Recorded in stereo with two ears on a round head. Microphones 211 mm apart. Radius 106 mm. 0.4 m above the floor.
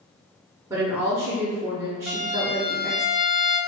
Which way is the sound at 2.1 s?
Centre (ahead or behind).